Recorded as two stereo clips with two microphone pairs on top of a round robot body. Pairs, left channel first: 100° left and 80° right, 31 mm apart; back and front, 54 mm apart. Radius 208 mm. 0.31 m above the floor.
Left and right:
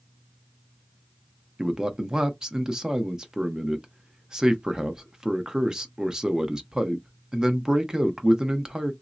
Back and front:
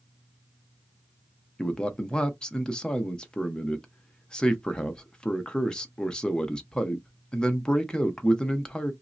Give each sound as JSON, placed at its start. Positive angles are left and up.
{"t": 1.6, "sound": "a man speaking", "azimuth_deg": -125, "distance_m": 1.0}